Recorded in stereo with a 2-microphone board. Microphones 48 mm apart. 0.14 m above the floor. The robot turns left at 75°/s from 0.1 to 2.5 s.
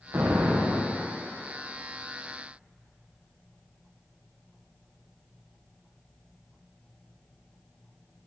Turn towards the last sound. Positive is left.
turn(degrees=100)